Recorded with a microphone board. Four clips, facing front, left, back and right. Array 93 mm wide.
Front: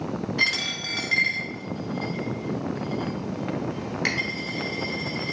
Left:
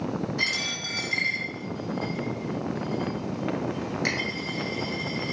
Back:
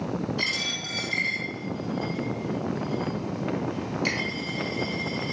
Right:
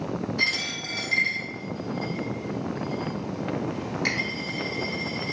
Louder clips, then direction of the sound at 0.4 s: Right 1 dB, front 3 dB; 5° left.